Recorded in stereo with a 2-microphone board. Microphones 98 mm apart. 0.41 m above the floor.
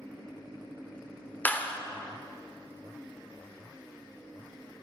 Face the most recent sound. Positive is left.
turn(degrees=20)  # may be behind; listen again after turning